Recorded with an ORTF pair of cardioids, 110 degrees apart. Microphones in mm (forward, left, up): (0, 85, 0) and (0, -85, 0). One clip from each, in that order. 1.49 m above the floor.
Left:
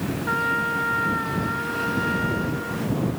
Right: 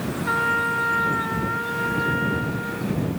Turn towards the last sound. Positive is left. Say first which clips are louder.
# right 2 dB
turn(degrees=-10)